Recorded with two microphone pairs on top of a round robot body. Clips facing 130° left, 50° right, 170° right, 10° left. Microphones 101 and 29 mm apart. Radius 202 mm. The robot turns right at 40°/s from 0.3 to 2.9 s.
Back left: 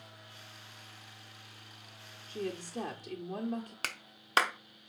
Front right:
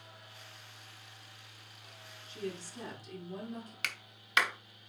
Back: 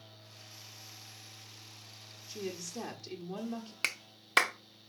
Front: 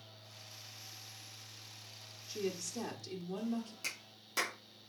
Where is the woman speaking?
90° left, 1.6 m; by 3.7 s 115° left, 1.6 m.